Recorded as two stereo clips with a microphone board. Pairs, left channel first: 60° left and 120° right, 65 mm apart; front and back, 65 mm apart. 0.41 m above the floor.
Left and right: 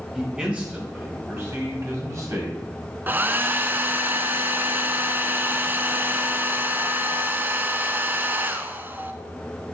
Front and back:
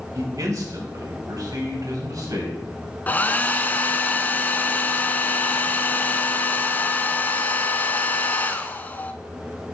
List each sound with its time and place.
0.1 s a man speaking: 160° left, 2.5 m; by 2.6 s 155° right, 3.5 m
3.1 s a hair dryer: 65° right, 0.6 m